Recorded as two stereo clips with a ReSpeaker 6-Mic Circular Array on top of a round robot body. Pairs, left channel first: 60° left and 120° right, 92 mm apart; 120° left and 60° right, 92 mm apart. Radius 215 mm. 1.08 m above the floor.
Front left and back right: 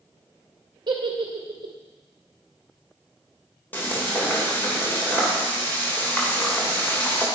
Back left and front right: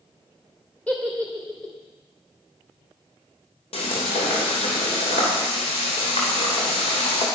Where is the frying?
130° left, 3 m.